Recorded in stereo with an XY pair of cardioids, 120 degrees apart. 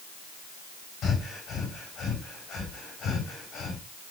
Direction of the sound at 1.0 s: 65° left.